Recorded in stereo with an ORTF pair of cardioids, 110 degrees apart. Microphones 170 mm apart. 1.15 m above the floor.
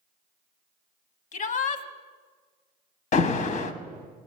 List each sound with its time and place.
1.3 s a shout: 50° left, 1.1 m
3.1 s an alarm: 50° left, 1.0 m